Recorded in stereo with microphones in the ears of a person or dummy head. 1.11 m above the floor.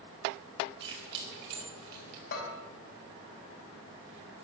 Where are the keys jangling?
70° right (ahead or behind), 6 m; by 2.2 s 55° right (ahead or behind), 6.5 m.